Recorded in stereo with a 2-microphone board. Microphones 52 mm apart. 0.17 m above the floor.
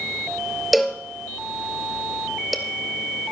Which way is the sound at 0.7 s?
Centre (ahead or behind).